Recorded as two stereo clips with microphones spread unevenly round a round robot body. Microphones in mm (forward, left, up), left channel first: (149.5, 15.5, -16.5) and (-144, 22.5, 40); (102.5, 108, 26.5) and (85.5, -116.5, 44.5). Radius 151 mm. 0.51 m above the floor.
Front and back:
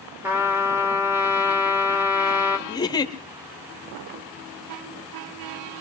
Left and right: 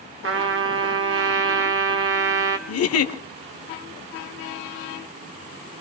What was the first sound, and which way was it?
A trumpet, 90° right.